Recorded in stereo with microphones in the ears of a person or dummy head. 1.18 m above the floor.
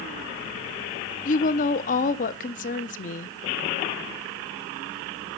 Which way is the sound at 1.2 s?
35° left (ahead or behind).